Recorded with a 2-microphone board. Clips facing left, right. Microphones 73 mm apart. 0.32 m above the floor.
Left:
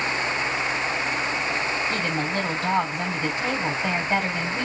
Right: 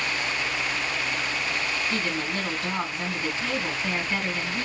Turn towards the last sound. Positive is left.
turn(degrees=60)  # may be behind; listen again after turning